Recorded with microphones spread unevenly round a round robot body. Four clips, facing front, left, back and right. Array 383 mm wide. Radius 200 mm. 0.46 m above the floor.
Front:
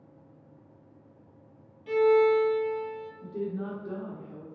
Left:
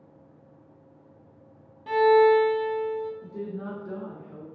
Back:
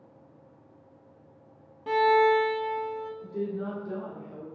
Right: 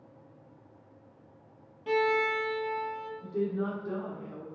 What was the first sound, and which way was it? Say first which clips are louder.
A violin: left 10 dB, even; 165° right.